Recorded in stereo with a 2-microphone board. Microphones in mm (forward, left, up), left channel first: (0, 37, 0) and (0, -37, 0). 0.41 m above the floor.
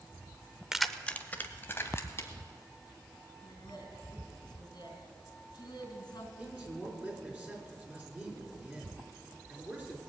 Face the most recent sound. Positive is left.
turn(degrees=-20)  # may be behind; listen again after turning